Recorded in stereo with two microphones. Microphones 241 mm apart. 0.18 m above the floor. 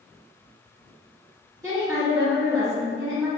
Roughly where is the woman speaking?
Centre.